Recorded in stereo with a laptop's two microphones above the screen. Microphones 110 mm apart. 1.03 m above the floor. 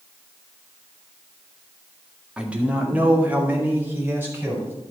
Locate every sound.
2.4 s a man speaking: 10° right (ahead or behind), 1.9 m; by 4.7 s 15° right (ahead or behind), 4.5 m